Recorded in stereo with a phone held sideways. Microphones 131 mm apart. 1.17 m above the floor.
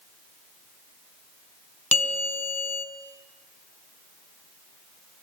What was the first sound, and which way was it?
A bell, 60° left (ahead or behind).